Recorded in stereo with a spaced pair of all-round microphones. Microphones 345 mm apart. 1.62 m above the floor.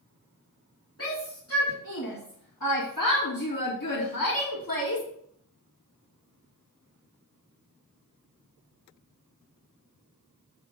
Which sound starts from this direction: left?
A shout, at 1.0 s.